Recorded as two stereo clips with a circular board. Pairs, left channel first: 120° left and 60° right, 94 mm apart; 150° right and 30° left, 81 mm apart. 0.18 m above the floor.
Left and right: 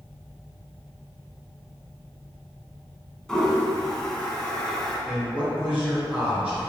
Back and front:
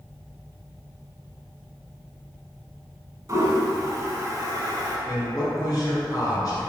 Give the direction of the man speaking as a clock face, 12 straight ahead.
4 o'clock.